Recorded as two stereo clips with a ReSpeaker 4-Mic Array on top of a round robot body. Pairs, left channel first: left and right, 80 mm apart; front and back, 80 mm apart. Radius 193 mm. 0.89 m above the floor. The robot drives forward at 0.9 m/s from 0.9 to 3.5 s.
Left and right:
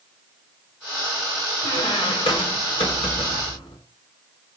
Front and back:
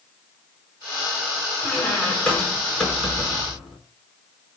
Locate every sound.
1.6 s a squeak: 70° left, 6 m; by 3.8 s 90° left, 5.5 m